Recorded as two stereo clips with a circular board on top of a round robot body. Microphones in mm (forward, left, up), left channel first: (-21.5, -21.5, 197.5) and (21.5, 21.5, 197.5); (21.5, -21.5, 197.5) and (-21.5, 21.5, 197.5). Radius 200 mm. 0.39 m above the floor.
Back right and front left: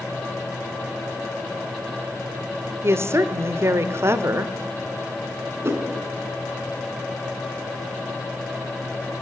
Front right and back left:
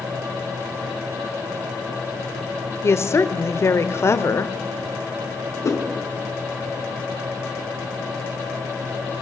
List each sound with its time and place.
2.8 s a woman speaking: straight ahead, 1.7 m
5.6 s a whoosh: 5° right, 4.5 m